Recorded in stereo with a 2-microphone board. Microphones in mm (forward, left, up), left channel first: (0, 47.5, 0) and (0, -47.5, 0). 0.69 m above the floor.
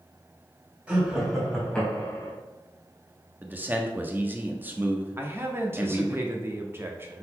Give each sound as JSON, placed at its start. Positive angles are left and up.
{"t": 0.9, "sound": "laughter", "side_deg": -10, "distance_m": 3.5}
{"t": 3.4, "sound": "a man speaking", "side_deg": -20, "distance_m": 1.2}
{"t": 5.2, "sound": "a man speaking", "side_deg": -25, "distance_m": 1.1}